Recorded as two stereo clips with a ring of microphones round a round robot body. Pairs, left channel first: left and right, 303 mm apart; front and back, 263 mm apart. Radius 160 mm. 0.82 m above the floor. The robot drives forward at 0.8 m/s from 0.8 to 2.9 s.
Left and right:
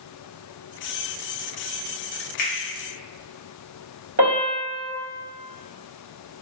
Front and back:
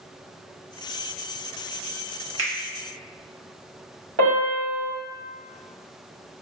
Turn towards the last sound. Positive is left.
turn(degrees=-145)